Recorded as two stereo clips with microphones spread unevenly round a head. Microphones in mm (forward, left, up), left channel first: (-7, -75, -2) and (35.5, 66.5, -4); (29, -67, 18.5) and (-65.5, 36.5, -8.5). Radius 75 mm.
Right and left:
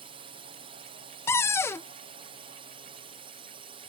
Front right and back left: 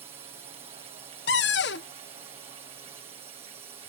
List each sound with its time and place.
0.0 s a drone: 90° left
1.3 s a cupboard door: 30° right